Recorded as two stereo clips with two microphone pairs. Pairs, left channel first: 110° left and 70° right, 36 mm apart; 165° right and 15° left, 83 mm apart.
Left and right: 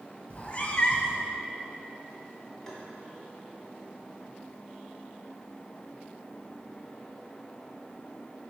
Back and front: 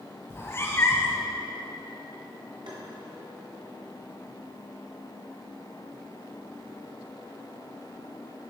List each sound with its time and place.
0.3 s a cat meowing: 145° left, 1.1 m
2.7 s tapping: 35° left, 2 m